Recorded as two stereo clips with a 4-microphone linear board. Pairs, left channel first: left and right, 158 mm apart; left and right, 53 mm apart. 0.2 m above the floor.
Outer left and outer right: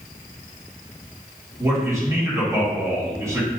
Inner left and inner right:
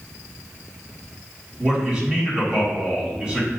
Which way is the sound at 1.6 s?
20° right (ahead or behind).